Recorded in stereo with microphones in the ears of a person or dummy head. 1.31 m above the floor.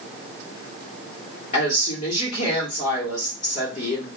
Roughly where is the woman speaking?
Left.